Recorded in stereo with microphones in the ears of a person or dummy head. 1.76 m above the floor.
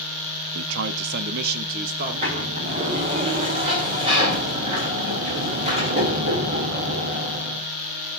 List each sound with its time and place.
0.6 s a man speaking: 80° right, 0.5 m; by 3.0 s 45° right (ahead or behind), 2 m
2.0 s a sliding door: 35° right (ahead or behind), 2 m